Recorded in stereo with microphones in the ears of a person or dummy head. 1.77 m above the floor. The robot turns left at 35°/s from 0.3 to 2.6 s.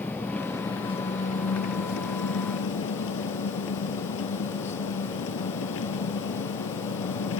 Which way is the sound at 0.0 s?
170° left.